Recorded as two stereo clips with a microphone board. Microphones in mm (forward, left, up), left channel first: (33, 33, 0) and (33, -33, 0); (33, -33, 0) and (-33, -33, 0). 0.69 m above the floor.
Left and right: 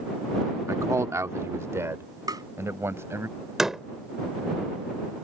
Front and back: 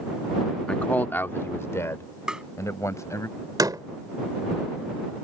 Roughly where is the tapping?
Right.